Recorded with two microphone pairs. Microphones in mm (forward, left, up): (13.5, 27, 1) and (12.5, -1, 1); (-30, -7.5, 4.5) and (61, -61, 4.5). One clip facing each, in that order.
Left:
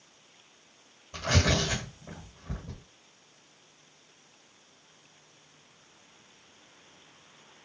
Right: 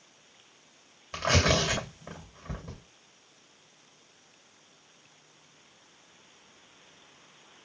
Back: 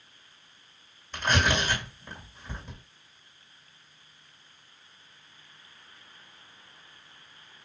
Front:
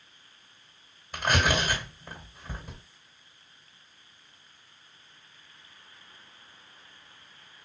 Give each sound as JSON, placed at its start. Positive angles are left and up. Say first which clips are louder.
{"t": 1.1, "sound": "tearing paper", "louder": "right 2 dB, even", "azimuth_deg": -110, "distance_m": 2.5}